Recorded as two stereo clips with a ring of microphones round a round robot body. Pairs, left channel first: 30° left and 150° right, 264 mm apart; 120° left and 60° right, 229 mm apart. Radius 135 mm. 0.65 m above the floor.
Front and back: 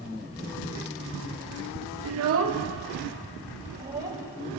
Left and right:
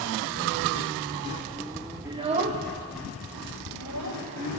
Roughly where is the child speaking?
Behind right.